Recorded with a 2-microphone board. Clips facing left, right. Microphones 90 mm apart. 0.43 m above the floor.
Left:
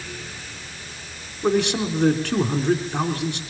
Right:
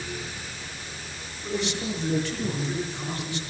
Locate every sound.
1.4 s a man speaking: 80° left, 4 m